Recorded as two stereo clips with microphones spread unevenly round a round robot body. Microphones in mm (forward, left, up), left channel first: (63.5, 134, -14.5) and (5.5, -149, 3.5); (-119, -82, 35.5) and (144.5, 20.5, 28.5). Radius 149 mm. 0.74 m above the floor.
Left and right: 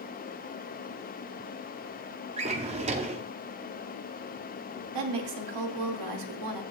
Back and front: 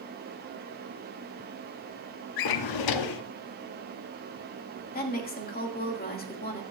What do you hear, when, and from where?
2.4 s a drawer: 175° right, 0.6 m
4.9 s a woman speaking: 100° right, 2 m